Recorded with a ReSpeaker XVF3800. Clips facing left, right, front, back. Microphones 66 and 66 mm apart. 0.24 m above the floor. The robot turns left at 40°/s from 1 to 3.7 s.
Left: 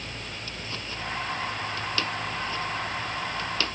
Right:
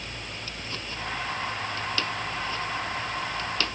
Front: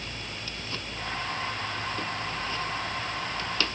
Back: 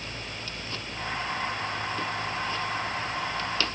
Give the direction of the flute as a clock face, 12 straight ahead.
No flute in this recording.